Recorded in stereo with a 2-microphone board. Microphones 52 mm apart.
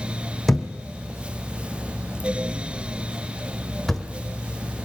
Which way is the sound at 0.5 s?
5° left (ahead or behind).